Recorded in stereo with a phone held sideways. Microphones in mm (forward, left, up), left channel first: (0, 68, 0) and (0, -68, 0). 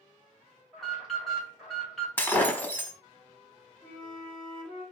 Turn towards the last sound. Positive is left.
turn(degrees=5)  # may be behind; listen again after turning